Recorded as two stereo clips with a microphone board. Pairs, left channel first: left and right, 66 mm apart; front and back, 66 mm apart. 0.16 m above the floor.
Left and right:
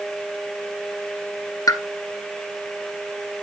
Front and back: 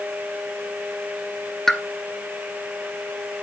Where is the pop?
85° left, 0.9 m.